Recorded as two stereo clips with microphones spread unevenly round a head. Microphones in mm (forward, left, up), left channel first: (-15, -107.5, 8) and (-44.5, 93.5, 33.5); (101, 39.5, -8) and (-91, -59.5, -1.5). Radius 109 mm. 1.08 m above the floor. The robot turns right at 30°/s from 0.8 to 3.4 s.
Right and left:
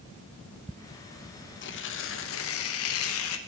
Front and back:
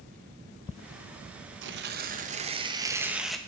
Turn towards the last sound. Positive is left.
turn(degrees=-60)